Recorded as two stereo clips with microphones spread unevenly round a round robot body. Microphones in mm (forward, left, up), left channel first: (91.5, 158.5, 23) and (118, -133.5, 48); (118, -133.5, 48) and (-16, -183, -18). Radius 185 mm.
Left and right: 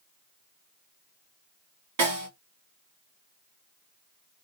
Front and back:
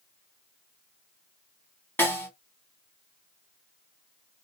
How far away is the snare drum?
About 1.9 m.